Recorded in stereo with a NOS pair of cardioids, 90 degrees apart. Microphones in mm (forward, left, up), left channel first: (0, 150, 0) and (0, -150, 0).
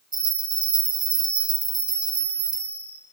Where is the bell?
15° right, 1.1 m.